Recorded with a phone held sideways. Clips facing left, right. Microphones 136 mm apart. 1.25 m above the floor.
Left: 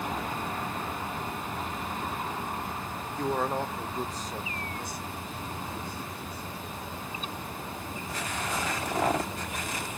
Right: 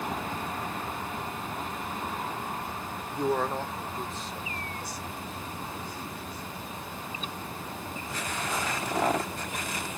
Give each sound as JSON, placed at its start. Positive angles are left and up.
{"t": 3.1, "sound": "a man speaking", "side_deg": -25, "distance_m": 0.9}